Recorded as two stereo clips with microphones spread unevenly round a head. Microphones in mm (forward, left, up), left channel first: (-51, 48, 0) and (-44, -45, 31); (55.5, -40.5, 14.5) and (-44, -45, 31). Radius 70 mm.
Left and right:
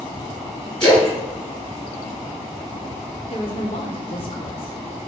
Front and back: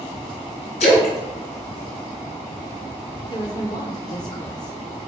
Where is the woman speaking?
60° left, 1.2 m.